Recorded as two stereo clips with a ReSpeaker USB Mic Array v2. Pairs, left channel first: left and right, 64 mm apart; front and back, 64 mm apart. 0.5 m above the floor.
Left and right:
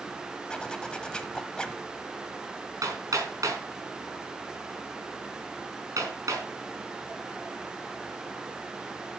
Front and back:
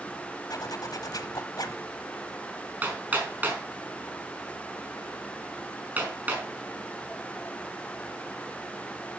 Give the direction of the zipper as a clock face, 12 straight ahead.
11 o'clock.